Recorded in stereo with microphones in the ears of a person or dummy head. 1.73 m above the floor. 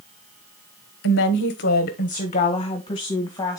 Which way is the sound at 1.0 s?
70° left (ahead or behind).